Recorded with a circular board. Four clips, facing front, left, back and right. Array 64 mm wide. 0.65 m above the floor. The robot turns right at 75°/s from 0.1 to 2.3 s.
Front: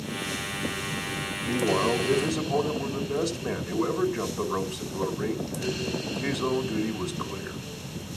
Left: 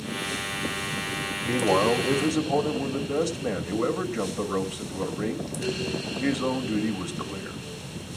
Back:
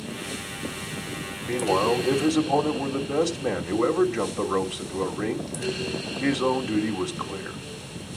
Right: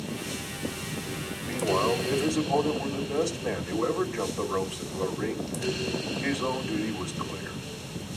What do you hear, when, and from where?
1.4 s a man speaking: 95° left, 3 m; by 7.6 s 160° left, 3 m